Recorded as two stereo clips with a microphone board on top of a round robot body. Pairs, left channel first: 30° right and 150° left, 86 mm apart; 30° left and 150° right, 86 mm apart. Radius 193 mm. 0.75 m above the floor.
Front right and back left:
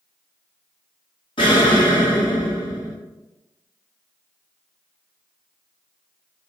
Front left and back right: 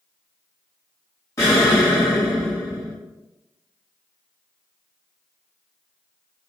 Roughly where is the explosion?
Ahead right.